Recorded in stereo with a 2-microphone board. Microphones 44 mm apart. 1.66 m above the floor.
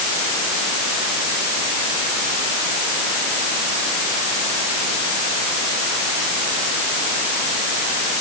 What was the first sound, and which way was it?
Only background noise.